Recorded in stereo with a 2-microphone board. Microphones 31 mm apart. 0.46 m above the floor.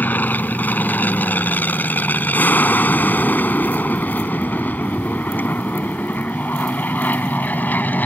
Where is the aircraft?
70° left (ahead or behind).